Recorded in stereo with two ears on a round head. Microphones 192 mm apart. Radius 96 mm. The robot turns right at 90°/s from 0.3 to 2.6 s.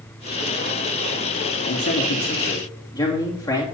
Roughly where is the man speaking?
Left.